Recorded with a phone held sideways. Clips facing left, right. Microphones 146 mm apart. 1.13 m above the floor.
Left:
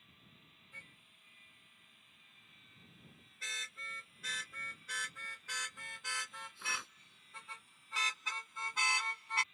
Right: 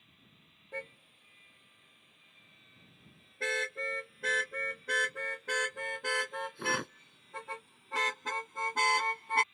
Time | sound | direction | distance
0.7 | a car horn | 60° right (ahead or behind) | ?